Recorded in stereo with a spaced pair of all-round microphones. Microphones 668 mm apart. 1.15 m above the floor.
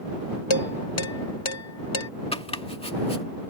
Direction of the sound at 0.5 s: 45° left (ahead or behind).